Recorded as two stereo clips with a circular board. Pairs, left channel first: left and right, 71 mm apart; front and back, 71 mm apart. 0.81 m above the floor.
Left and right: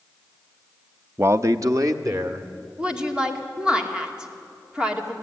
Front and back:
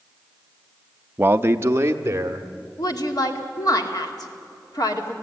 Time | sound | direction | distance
1.2 | a man speaking | 130° right | 0.5 m
2.8 | a woman speaking | 15° right | 2.5 m